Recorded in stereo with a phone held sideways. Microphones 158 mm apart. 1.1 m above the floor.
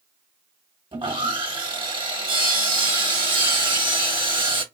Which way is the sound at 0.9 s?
30° right (ahead or behind).